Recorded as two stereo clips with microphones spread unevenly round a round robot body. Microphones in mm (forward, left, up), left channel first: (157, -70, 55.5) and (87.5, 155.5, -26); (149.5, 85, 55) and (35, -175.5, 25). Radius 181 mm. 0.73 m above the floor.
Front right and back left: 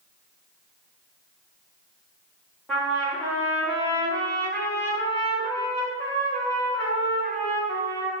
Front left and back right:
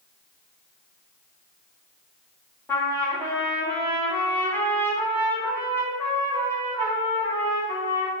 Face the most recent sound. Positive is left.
turn(degrees=150)